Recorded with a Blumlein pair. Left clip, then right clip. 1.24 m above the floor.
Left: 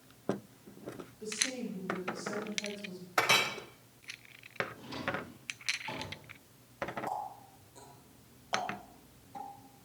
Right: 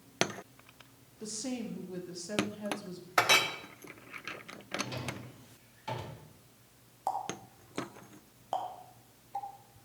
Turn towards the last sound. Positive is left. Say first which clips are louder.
# right 3 dB
turn(degrees=-20)